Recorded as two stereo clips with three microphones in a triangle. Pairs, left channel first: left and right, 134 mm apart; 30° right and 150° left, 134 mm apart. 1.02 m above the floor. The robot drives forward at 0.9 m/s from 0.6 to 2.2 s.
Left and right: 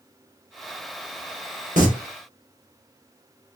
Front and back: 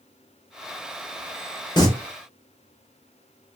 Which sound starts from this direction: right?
Singing, at 1.8 s.